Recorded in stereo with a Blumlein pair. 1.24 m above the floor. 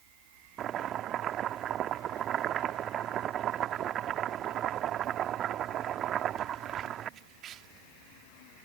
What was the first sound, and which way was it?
Chopping, 30° right.